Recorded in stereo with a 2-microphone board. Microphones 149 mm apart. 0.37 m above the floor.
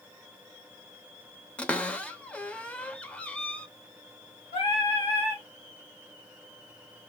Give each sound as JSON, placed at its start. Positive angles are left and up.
{"t": 1.6, "sound": "a cupboard door", "side_deg": 10, "distance_m": 0.5}
{"t": 4.5, "sound": "singing", "side_deg": 35, "distance_m": 2.5}